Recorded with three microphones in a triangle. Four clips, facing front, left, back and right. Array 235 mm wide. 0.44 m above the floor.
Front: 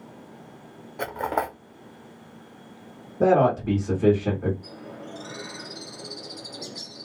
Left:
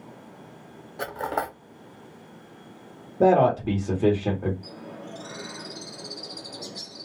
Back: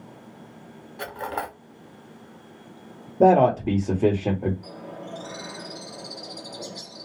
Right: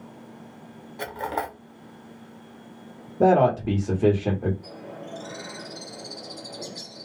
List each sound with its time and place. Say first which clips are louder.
1.0 s cutlery clinking: left 1 dB, front 4 dB; 25° left, 0.6 m
3.2 s a man speaking: even, back 3 dB; 175° right, 1.0 m
4.6 s a bird: right 1 dB, back 2 dB; 130° right, 1.7 m